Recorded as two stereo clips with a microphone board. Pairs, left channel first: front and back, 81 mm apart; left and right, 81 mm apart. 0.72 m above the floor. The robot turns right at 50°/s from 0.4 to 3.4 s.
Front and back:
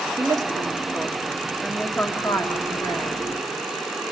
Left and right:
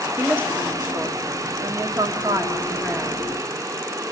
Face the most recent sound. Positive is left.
turn(degrees=5)